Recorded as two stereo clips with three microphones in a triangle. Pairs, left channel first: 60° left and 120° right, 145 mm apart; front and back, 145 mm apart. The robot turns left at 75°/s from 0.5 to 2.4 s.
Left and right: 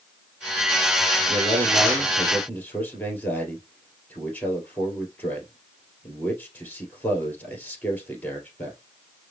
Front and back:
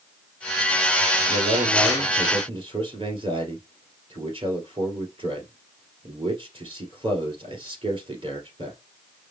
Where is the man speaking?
140° right, 2 m; by 8.8 s 135° left, 2 m.